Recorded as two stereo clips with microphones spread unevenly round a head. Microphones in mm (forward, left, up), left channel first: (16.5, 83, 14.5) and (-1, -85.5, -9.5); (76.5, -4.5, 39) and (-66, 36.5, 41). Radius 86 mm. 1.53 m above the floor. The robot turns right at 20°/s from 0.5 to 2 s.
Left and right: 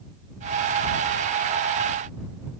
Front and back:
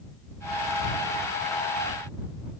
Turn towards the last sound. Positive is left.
No sound to turn to.